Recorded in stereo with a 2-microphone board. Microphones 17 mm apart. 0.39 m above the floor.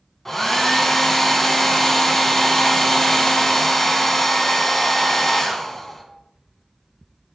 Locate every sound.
0.2 s a hair dryer: 10° left (ahead or behind), 0.5 m